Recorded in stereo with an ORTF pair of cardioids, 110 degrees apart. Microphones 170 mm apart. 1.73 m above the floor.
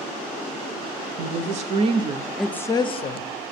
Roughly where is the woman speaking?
Ahead right.